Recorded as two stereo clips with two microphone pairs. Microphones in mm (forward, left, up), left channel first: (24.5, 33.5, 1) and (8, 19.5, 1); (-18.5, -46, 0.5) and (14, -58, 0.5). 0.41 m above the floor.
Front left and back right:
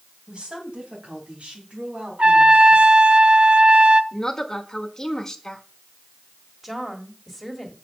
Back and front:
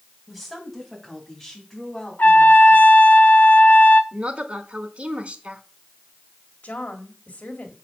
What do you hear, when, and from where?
0.3 s a woman speaking: 110° right, 2.5 m; by 2.9 s 130° right, 4 m
2.2 s a trumpet: 160° right, 0.6 m
4.1 s a woman speaking: 5° right, 1.1 m
6.6 s a woman speaking: 145° left, 1.6 m